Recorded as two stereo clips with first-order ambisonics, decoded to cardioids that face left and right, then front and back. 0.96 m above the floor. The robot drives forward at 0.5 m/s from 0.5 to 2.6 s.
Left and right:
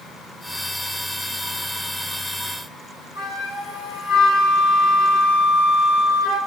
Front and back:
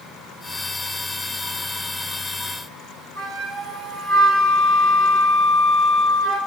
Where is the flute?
100° left, 1.4 m.